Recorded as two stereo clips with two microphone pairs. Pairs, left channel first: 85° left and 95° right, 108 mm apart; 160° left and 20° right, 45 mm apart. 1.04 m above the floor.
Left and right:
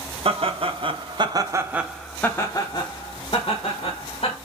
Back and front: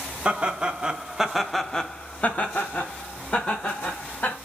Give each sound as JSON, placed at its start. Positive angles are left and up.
{"t": 0.2, "sound": "laughter", "azimuth_deg": -85, "distance_m": 1.1}